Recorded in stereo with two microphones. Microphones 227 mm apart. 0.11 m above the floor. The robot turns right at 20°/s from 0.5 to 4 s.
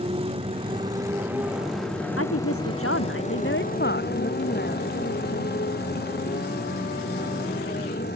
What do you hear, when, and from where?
0.0 s a motorcycle: 25° right; by 8.2 s 45° left
2.2 s a woman speaking: 95° left; by 4.9 s 130° left